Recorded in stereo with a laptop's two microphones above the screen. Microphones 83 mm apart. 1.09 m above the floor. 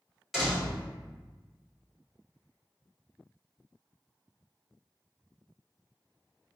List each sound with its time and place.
0.3 s a door slam: centre (ahead or behind), 1.7 m